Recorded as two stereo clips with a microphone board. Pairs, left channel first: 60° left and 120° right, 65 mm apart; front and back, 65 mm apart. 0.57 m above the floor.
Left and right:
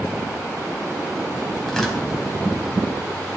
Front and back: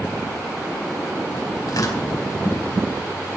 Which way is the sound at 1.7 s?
20° right.